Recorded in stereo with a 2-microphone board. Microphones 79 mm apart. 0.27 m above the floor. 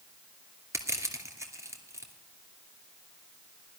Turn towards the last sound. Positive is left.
turn(degrees=-40)  # may be behind; listen again after turning